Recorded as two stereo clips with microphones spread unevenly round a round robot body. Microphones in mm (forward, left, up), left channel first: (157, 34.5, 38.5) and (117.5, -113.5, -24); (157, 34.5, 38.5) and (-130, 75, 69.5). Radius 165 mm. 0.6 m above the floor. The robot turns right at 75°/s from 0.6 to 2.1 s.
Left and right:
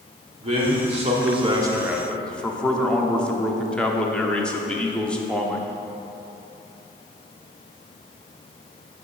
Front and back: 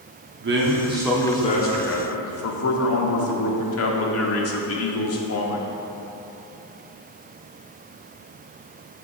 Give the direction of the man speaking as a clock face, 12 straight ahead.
5 o'clock.